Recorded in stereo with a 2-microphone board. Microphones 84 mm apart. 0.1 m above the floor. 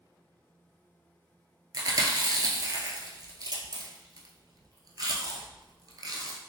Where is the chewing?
50° right (ahead or behind), 0.6 m.